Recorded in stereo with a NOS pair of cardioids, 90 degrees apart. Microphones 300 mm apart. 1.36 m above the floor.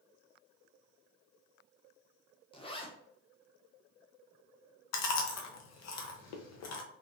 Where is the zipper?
20° left, 0.7 m.